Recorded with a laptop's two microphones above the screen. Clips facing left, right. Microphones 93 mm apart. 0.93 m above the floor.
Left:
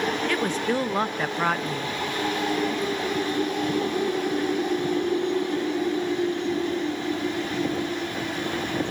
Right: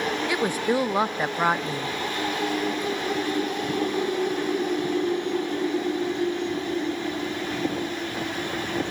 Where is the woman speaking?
10° right (ahead or behind), 0.5 m.